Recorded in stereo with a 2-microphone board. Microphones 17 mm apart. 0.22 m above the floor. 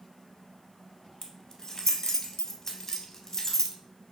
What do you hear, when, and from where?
1.2 s keys jangling: 25° left (ahead or behind), 0.8 m